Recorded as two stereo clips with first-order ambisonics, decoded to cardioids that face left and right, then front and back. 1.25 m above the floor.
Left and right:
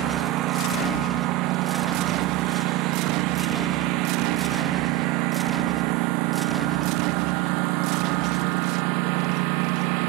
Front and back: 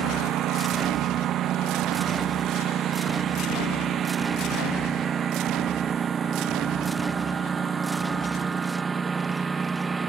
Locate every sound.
0.0 s a lawn mower: 130° right; by 10.1 s 100° right